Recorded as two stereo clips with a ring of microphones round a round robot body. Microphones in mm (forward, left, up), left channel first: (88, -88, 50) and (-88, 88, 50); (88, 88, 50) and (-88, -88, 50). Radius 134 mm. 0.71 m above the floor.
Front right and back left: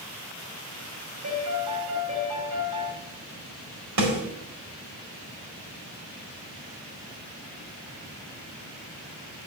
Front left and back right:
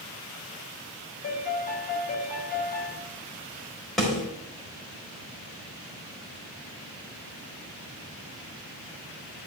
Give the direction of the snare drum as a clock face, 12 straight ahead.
8 o'clock.